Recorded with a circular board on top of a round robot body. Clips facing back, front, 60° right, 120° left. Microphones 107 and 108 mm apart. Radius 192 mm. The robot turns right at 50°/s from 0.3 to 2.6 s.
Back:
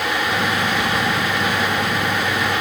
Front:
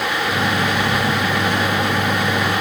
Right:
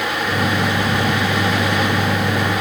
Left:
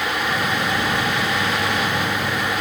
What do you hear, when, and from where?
Only background noise.